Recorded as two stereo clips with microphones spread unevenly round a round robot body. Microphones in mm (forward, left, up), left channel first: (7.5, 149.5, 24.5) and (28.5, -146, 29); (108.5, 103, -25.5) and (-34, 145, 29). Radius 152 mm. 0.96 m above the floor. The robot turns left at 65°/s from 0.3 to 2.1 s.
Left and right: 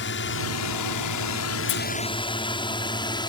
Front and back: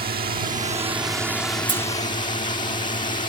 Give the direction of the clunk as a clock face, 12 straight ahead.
8 o'clock.